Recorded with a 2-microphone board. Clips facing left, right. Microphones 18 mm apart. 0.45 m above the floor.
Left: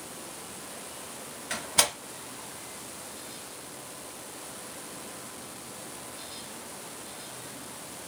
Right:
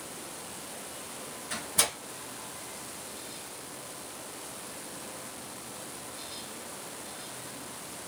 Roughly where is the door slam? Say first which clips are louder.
Left 4 dB; left.